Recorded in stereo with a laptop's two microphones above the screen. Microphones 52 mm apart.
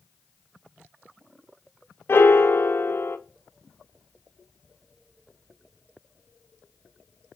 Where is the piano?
50° left (ahead or behind), 0.6 m.